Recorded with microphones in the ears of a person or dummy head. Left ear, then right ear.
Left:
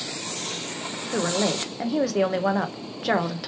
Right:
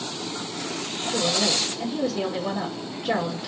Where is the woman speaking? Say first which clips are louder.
Right 2 dB; 55° left (ahead or behind), 0.9 m.